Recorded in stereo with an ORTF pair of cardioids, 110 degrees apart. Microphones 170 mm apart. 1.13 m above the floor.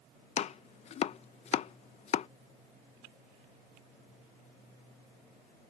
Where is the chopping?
40° left.